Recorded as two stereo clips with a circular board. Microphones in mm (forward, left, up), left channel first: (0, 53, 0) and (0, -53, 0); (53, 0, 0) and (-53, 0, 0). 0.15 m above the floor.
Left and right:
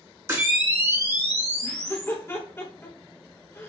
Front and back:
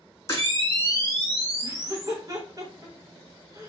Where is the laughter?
145° left, 1.5 m.